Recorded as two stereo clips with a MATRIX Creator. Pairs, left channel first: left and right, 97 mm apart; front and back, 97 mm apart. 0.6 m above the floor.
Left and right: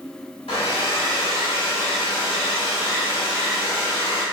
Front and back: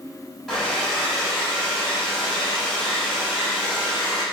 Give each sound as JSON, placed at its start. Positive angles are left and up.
{"t": 0.5, "sound": "a hair dryer", "azimuth_deg": 90, "distance_m": 0.9}